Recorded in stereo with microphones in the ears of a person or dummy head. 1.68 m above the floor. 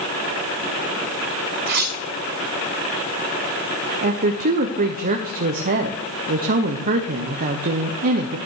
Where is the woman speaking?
40° right (ahead or behind), 1.0 m.